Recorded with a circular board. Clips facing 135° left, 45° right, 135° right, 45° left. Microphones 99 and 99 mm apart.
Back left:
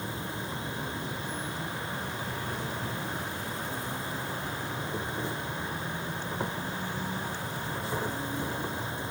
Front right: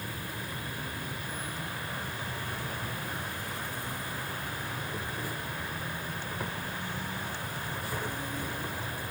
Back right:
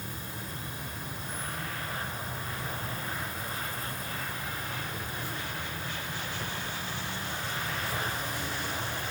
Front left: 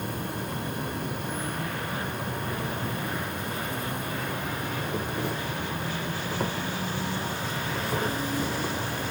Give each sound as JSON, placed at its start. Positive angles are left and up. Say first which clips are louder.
{"t": 0.0, "sound": "an insect", "louder": "back left 3 dB, front left 9 dB", "azimuth_deg": 70, "distance_m": 0.8}